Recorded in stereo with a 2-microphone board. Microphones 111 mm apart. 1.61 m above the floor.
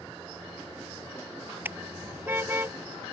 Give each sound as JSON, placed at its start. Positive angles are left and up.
{"t": 1.6, "sound": "a car horn", "side_deg": -20}